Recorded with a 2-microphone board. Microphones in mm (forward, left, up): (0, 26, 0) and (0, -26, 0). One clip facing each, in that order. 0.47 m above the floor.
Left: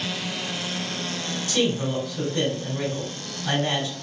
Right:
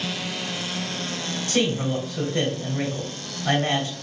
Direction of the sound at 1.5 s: 40° right (ahead or behind).